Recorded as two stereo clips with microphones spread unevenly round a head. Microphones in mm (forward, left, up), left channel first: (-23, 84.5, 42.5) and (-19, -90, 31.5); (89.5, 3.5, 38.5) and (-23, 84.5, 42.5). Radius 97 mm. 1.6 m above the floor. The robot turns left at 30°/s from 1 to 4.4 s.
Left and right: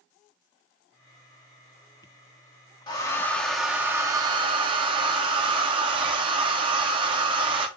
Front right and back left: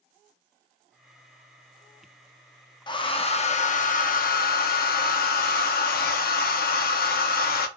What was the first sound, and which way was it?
A hair dryer, 25° left.